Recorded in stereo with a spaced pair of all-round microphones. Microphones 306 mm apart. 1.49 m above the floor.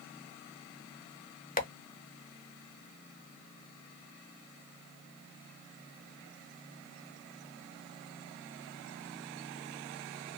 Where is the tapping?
30° left (ahead or behind), 0.6 m.